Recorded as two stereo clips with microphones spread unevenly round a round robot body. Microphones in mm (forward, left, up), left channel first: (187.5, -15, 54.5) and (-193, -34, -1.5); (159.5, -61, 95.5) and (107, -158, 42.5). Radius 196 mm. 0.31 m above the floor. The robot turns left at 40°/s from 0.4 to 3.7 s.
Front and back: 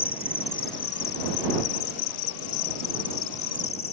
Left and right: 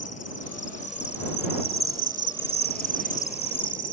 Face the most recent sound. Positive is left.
turn(degrees=-55)